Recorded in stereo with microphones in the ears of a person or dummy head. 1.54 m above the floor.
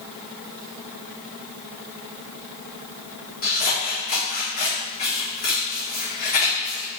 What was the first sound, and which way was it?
Scissors, 50° left (ahead or behind).